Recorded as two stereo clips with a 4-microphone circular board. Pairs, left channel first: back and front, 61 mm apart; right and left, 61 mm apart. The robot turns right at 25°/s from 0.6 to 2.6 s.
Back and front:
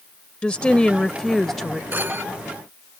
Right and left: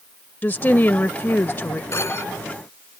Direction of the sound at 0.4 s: 120° right.